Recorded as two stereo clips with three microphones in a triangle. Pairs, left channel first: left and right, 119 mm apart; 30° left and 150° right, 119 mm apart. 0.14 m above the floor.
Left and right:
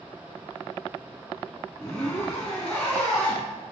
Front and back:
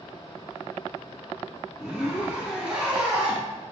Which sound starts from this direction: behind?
A zipper, at 1.8 s.